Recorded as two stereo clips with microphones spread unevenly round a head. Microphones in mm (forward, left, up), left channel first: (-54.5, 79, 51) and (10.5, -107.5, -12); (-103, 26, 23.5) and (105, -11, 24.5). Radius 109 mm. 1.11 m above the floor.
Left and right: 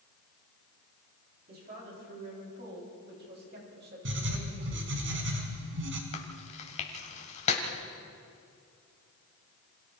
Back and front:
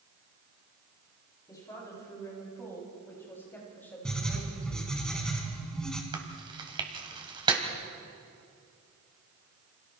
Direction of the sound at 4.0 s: 105° right.